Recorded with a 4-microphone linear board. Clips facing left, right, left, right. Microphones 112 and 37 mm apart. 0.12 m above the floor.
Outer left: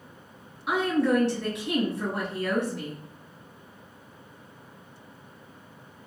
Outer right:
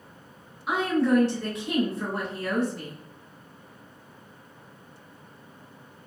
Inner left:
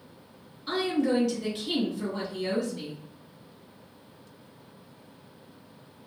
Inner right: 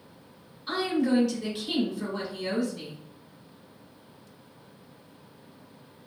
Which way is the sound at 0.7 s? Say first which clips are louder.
Outer right 1 dB, even; 5° right (ahead or behind).